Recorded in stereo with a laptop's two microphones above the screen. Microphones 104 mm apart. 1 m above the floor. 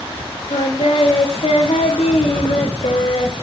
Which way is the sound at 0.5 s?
75° left (ahead or behind).